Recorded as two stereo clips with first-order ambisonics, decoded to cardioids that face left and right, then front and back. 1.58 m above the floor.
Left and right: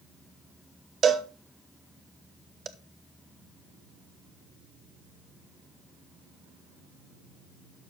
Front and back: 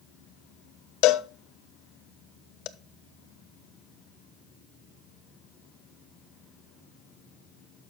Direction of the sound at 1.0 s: 30° right.